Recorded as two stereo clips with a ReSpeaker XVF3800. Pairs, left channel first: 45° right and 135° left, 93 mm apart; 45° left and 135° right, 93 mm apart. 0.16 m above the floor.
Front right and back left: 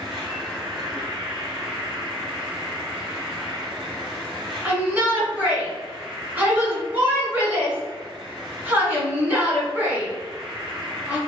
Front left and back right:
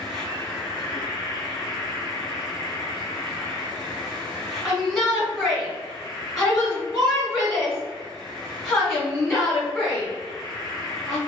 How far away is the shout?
About 1.6 m.